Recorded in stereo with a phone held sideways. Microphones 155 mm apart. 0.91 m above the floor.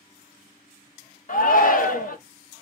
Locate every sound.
1.3 s a shout: 60° left (ahead or behind), 0.9 m